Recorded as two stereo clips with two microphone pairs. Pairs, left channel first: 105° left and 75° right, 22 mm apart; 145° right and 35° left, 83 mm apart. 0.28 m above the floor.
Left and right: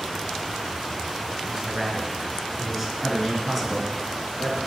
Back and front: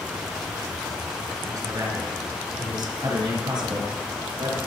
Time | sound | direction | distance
1.4 | a man speaking | 10° right | 4 m